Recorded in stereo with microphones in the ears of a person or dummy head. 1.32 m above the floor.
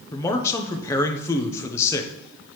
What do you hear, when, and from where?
0.1 s a man speaking: 20° left (ahead or behind), 0.6 m